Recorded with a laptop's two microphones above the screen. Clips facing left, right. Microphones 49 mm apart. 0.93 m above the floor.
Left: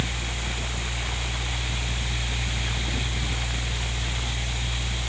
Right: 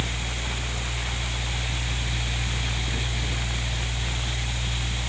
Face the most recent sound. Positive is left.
turn(degrees=-60)  # may be behind; listen again after turning